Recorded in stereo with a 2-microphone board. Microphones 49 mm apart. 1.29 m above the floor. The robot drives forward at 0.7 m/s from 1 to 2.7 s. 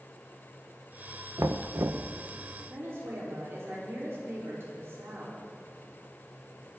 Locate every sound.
1.4 s knocking: 75° right (ahead or behind), 0.7 m; by 2.1 s 65° right (ahead or behind), 0.7 m
2.7 s a woman speaking: 60° right (ahead or behind), 4 m